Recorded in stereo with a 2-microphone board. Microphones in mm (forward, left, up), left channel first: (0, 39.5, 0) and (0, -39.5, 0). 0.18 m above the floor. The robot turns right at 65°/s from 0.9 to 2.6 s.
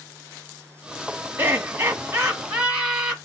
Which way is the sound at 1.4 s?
30° right (ahead or behind).